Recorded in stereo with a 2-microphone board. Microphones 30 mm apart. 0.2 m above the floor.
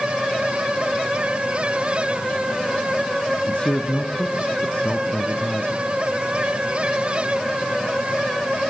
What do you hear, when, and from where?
3.5 s a man speaking: 40° left (ahead or behind), 1.8 m